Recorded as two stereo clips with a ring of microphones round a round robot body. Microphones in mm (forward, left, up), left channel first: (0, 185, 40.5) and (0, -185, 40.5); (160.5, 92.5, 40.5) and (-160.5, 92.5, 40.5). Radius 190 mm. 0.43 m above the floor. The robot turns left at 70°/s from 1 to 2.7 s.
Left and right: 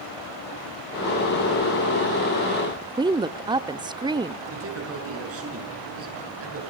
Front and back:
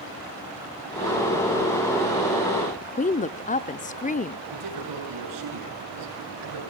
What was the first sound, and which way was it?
A woman speaking, 25° right.